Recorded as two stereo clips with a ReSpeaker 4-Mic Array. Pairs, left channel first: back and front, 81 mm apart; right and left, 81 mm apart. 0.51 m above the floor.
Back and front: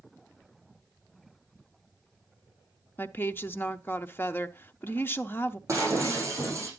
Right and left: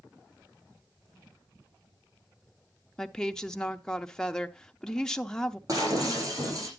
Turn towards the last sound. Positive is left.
turn(degrees=50)